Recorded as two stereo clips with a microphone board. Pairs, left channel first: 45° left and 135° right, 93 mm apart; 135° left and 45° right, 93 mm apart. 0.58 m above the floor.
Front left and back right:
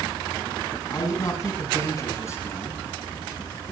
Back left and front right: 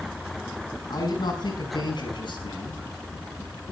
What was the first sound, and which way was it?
A man speaking, 95° left.